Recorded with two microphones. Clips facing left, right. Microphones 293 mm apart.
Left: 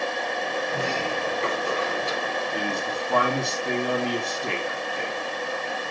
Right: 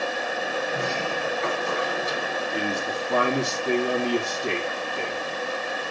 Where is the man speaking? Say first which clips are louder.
Right 1 dB; centre (ahead or behind), 3 m.